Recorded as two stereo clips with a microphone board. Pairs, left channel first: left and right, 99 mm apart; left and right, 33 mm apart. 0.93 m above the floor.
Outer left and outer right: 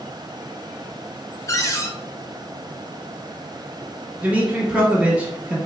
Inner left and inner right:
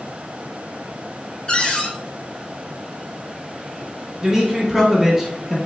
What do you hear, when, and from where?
1.5 s a cupboard door: 30° left (ahead or behind), 0.5 m
4.2 s a man speaking: 15° right (ahead or behind), 0.9 m